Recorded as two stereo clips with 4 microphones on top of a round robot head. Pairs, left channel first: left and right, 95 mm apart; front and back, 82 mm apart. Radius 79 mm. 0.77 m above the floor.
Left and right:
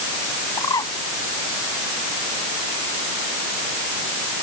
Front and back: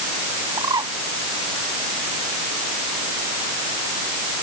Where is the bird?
140° left.